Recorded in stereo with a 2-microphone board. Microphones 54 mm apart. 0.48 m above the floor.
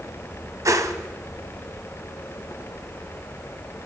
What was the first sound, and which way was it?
A whoosh, 90° right.